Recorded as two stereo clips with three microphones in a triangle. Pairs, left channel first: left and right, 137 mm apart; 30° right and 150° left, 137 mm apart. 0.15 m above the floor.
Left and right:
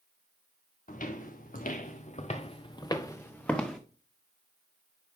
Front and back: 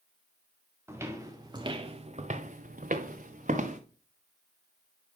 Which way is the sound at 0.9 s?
80° left.